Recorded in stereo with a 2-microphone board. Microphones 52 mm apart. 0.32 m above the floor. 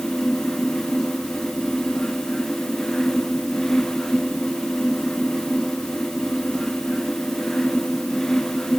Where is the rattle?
I don't hear a rattle.